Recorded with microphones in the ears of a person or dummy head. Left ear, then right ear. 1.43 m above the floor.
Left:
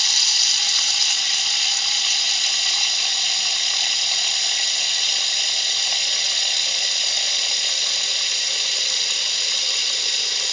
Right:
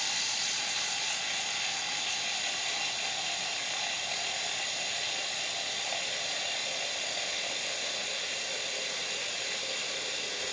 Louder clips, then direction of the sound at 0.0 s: Left 14 dB; 50° left (ahead or behind).